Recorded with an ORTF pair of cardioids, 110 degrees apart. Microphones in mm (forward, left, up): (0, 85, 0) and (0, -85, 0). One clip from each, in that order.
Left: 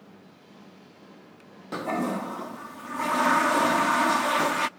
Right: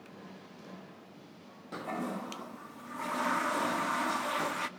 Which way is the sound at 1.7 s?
35° left.